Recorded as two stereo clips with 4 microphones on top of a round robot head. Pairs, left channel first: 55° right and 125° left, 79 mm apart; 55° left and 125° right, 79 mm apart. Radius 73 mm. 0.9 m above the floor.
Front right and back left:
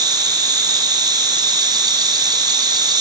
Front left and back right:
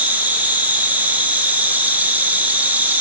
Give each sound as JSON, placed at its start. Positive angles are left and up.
{"t": 0.0, "sound": "an insect", "azimuth_deg": 165, "distance_m": 4.0}